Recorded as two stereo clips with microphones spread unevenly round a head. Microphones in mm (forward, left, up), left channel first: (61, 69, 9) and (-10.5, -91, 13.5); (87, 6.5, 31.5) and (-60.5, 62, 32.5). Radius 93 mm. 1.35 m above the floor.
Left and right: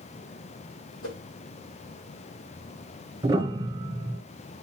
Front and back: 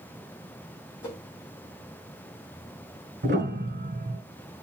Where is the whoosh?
55° left, 5.5 m.